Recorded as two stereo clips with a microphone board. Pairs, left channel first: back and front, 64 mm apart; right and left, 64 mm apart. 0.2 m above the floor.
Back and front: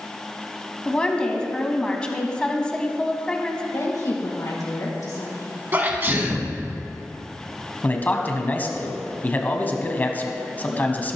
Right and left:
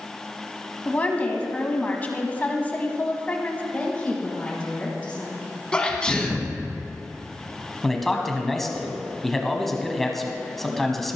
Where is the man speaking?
170° right, 1.2 m.